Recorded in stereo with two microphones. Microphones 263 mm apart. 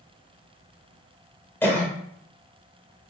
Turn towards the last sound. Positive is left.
turn(degrees=5)  # may be behind; listen again after turning